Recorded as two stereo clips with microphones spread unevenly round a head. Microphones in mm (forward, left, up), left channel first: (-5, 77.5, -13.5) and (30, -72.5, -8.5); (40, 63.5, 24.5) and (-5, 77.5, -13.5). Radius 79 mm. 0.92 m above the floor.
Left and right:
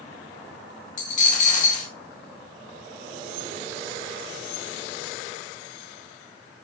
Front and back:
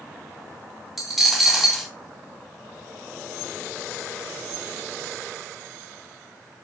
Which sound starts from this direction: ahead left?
A dropped coin, at 1.0 s.